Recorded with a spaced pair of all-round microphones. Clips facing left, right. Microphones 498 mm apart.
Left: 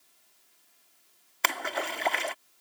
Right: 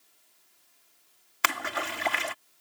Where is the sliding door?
I don't hear a sliding door.